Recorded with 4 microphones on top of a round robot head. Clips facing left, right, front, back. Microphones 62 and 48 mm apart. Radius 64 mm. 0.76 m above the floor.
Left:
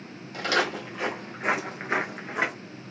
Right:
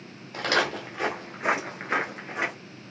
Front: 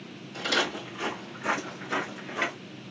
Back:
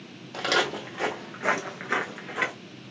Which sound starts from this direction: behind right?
Footsteps, at 0.3 s.